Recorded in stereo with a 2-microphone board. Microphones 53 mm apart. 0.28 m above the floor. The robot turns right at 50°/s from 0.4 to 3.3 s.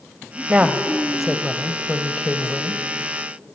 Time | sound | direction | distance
0.5 | a woman speaking | 45° right | 1.2 m